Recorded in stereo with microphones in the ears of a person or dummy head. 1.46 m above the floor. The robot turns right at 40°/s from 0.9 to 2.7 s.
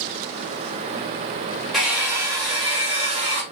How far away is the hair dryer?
About 2.5 m.